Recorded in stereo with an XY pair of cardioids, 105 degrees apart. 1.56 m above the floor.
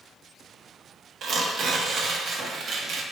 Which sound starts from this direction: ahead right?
Tearing paper, at 1.2 s.